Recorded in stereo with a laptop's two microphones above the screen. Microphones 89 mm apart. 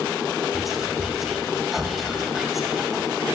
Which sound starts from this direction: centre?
Whispering, at 0.5 s.